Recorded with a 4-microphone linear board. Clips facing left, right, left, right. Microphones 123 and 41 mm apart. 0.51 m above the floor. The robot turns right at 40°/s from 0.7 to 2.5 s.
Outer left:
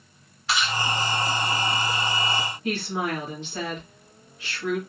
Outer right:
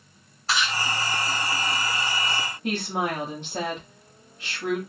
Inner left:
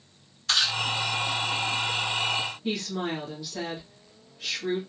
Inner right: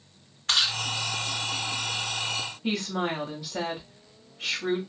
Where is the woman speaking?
45° right (ahead or behind), 1.2 m.